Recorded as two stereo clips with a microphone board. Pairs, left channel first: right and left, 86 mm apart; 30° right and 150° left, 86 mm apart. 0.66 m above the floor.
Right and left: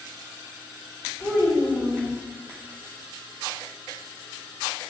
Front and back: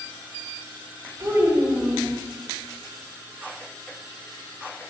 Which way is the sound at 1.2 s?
150° right.